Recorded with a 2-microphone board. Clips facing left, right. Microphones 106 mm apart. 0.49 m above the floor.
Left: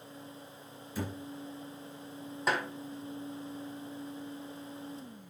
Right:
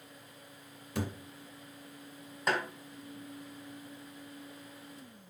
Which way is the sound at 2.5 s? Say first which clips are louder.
Even; 5° left (ahead or behind).